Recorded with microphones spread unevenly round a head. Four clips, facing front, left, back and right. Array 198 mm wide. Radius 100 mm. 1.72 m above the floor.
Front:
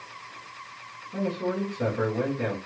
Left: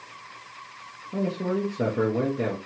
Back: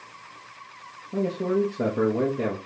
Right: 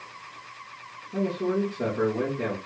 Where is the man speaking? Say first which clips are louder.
Right 1 dB, back 4 dB; 150° left, 0.9 m.